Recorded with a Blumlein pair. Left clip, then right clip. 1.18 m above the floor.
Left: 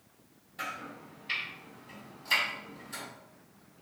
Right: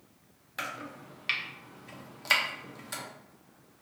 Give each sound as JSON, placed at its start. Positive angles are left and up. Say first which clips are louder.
{"t": 0.6, "sound": "chopping", "louder": "right 1 dB", "azimuth_deg": -50, "distance_m": 0.5}